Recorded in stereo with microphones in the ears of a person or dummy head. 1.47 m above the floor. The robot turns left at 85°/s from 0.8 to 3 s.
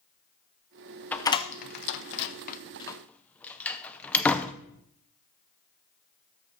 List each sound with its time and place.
1.1 s a door slam: 5° left (ahead or behind), 0.5 m; by 4.5 s 10° left (ahead or behind), 0.5 m